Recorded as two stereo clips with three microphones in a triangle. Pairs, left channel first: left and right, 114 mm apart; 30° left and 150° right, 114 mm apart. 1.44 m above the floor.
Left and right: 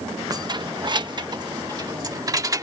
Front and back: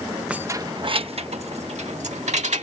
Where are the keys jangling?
80° right; by 2.6 s 150° right.